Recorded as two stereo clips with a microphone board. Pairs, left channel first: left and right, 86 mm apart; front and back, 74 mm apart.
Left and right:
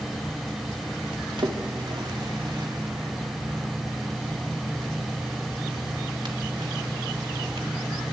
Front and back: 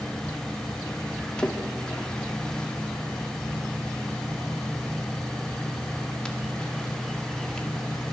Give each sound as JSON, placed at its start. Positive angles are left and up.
{"t": 1.4, "sound": "a splash", "azimuth_deg": -75, "distance_m": 2.0}